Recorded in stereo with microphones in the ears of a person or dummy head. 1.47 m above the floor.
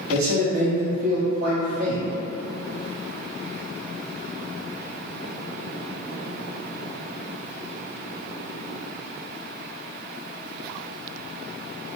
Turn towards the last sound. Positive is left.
turn(degrees=-55)  # may be behind; listen again after turning